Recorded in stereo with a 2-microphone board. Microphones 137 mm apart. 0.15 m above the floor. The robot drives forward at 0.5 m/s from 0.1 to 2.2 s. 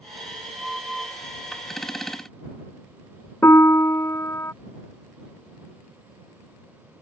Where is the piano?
20° left (ahead or behind).